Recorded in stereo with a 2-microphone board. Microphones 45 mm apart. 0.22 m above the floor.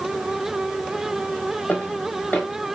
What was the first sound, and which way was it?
Footsteps, 40° left (ahead or behind).